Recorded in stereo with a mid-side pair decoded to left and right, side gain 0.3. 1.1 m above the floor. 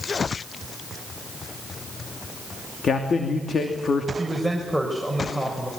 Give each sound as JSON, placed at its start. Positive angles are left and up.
{"t": 2.8, "sound": "a man speaking", "azimuth_deg": 65, "distance_m": 2.5}
{"t": 4.2, "sound": "a man speaking", "azimuth_deg": 0, "distance_m": 5.5}